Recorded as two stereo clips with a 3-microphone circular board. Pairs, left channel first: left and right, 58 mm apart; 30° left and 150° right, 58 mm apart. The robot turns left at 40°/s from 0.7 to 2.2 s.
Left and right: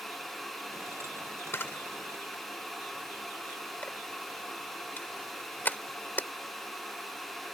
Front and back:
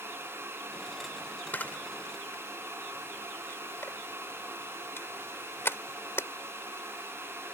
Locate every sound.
1.5 s a camera shutter: 75° left; by 6.3 s 50° left